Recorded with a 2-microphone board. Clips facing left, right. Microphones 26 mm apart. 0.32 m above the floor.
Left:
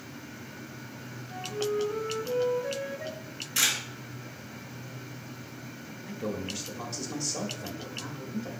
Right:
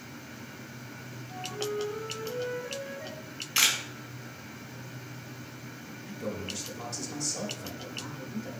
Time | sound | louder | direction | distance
1.3 | a flute | left 3 dB | 25° left (ahead or behind) | 1.0 m
3.1 | a camera shutter | right 3 dB | 30° right (ahead or behind) | 1.5 m
6.0 | a man speaking | left 2 dB | 20° left (ahead or behind) | 0.9 m